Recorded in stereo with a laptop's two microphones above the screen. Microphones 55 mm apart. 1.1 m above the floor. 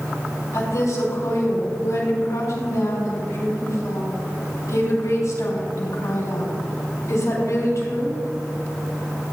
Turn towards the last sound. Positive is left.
turn(degrees=85)